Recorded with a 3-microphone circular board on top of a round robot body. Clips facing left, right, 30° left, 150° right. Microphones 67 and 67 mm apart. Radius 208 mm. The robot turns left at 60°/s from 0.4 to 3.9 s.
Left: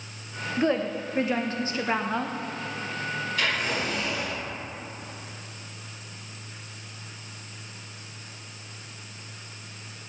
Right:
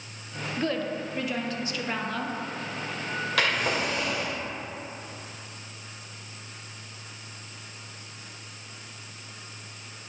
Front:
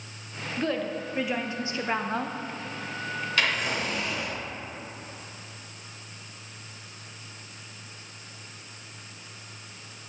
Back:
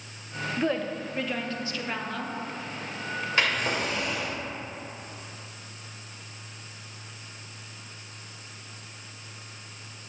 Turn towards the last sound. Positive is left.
turn(degrees=-115)